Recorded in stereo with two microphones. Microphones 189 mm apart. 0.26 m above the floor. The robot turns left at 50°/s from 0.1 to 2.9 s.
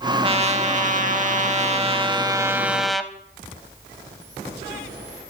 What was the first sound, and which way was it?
A trumpet, 45° right.